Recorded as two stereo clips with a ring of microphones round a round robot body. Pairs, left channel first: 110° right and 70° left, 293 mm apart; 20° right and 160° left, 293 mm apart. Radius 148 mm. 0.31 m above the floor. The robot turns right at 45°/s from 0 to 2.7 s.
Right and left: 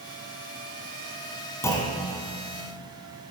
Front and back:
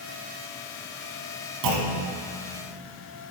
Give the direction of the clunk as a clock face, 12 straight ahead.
6 o'clock.